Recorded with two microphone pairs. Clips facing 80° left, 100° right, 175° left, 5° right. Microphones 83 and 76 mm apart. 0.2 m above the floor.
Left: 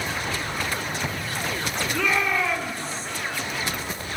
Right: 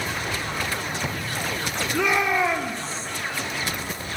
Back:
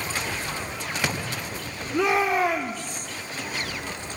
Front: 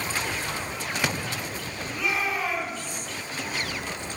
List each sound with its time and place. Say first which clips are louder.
1.9 s a shout: right 3 dB, back 7 dB; 175° right, 3.5 m; by 3.1 s 155° right, 3 m